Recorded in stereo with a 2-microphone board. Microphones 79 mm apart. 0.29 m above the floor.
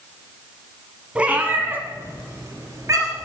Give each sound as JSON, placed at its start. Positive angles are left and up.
{"t": 1.1, "sound": "a cat meowing", "side_deg": -15, "distance_m": 1.5}